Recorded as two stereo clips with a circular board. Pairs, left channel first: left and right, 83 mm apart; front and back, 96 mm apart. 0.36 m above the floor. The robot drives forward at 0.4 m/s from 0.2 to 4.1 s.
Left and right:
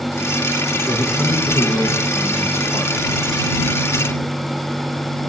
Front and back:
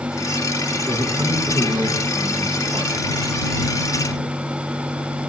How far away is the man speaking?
About 4 m.